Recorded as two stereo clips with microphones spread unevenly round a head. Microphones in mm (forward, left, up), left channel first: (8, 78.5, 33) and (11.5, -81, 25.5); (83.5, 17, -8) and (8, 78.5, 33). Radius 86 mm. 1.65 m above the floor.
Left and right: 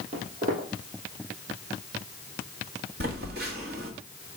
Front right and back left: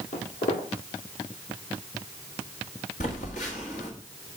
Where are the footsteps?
50° right, 3 m.